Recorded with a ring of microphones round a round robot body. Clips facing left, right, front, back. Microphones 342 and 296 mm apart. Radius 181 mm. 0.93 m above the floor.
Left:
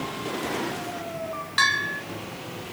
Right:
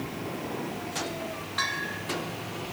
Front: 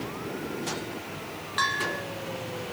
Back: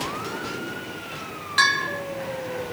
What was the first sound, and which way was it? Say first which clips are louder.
A bell: left 1 dB, back 2 dB; 130° left.